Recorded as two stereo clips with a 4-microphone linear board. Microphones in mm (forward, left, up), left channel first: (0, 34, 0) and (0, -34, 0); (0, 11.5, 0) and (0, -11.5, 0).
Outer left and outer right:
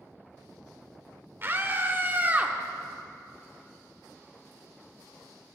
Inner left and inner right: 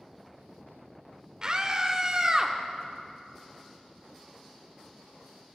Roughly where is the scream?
Right.